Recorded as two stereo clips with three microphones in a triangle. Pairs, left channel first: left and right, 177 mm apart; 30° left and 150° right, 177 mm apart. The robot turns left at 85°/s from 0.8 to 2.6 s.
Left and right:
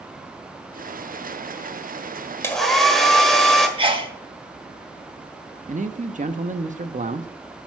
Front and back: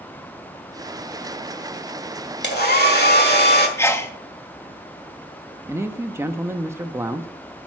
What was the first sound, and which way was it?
A hair dryer, 15° left.